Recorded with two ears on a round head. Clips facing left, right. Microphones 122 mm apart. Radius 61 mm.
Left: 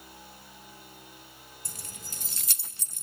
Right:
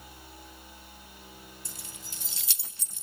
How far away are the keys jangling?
About 0.5 m.